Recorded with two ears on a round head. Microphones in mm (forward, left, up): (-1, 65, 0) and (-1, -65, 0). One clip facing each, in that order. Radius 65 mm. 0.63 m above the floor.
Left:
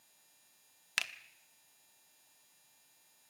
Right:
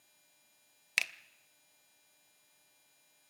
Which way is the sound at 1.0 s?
15° right (ahead or behind).